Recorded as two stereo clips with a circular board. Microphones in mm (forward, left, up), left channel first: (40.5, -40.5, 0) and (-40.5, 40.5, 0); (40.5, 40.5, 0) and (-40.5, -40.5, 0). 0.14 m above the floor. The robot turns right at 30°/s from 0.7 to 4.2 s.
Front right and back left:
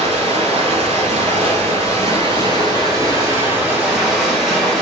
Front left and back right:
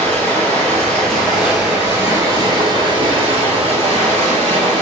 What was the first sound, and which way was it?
Running water, 120° left.